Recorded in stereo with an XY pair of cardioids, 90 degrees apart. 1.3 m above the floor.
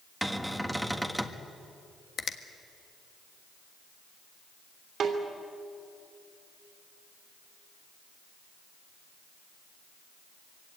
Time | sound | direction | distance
0.2 | a cupboard door | 5° right | 1.5 m
2.2 | a finger snap | 55° left | 1.4 m
5.0 | a snare drum | 60° right | 3 m